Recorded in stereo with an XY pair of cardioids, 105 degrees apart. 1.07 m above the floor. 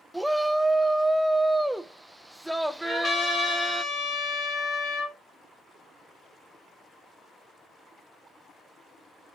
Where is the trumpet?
50° left, 2.5 m.